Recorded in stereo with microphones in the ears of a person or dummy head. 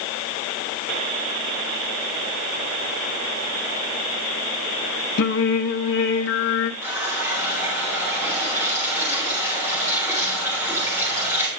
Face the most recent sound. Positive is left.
turn(degrees=-10)  # may be behind; listen again after turning